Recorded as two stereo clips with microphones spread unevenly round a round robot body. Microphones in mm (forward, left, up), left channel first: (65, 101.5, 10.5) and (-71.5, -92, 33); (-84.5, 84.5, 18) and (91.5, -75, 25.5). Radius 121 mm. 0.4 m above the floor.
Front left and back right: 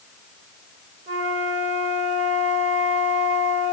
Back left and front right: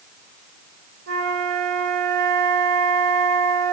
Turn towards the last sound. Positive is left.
turn(degrees=-65)